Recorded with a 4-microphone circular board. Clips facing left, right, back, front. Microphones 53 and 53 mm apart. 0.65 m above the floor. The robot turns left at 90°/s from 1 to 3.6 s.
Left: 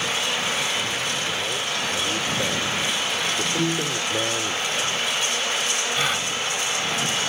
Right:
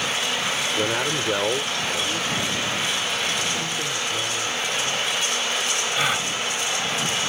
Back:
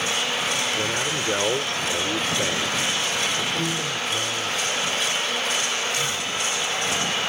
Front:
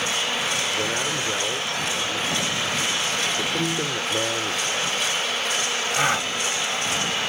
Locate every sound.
0.8 s a man speaking: 85° right; by 4.6 s 40° left
3.6 s a piano: 75° left
5.9 s a gasp: 5° right